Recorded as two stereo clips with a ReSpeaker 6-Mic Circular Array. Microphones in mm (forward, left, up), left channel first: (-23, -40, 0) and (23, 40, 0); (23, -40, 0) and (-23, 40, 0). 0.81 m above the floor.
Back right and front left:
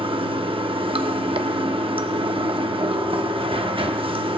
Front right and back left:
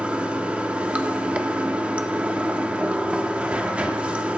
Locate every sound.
0.0 s running water: 45° left, 0.7 m